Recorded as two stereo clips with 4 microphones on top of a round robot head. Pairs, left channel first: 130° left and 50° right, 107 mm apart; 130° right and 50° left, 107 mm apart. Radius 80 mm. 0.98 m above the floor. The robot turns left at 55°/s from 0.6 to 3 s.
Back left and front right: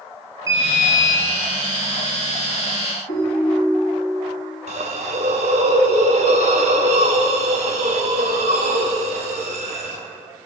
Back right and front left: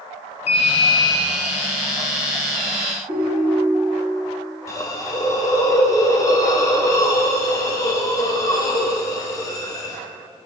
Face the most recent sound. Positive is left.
turn(degrees=-70)